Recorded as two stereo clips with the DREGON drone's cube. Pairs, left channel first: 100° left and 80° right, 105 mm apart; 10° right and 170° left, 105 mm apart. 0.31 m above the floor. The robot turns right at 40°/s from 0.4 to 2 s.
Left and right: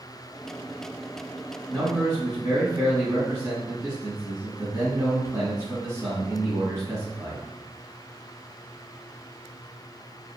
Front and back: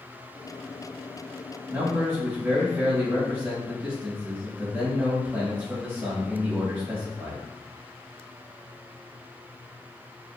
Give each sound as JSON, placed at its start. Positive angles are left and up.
{"t": 1.7, "sound": "a man speaking", "azimuth_deg": -135, "distance_m": 2.0}